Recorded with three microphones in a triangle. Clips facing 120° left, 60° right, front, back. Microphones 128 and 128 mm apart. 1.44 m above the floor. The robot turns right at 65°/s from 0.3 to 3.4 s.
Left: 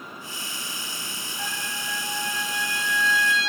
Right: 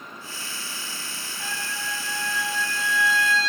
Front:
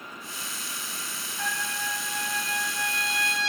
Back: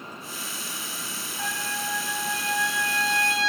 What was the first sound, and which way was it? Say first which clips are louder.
A trumpet: even, back 1 dB; 95° left.